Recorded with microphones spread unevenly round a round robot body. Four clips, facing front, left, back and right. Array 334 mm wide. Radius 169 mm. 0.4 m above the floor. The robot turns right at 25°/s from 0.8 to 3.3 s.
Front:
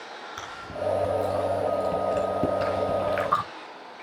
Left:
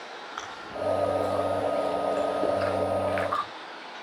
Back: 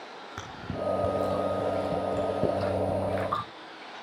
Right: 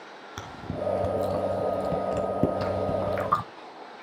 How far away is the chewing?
About 1.3 m.